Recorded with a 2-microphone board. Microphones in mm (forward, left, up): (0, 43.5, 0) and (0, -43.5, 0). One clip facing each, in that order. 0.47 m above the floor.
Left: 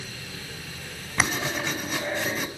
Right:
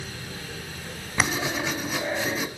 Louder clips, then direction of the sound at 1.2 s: Right 1 dB; 5° right (ahead or behind).